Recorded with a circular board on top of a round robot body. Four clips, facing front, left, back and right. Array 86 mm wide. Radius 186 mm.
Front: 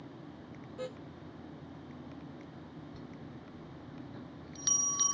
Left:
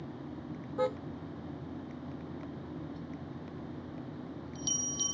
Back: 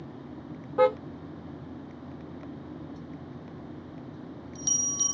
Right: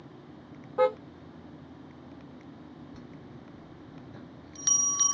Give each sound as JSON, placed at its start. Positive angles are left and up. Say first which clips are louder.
{"t": 0.8, "sound": "a car horn", "louder": "right 7 dB, back 20 dB", "azimuth_deg": -155}
{"t": 2.9, "sound": "a bell", "louder": "left 4 dB, back 6 dB", "azimuth_deg": -70}